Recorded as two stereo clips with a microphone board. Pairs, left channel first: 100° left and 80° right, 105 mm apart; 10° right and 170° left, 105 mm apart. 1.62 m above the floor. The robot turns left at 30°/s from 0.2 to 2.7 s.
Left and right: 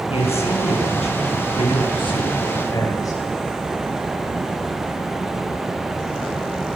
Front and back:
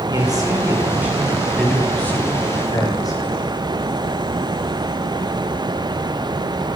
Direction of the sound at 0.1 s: 120° left.